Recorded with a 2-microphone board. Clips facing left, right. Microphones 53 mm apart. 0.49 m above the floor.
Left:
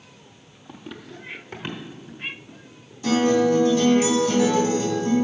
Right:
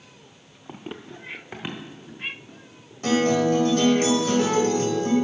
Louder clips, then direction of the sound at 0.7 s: Right 2 dB; 30° right (ahead or behind).